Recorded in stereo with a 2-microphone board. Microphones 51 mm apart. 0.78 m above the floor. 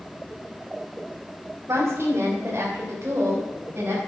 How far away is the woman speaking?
About 2.5 m.